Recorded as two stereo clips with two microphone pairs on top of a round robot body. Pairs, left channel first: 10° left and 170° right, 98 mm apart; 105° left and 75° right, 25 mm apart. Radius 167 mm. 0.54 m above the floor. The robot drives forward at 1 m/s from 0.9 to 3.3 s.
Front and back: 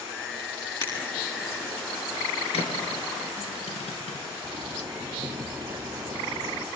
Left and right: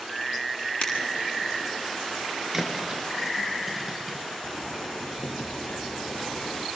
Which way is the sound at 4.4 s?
120° left.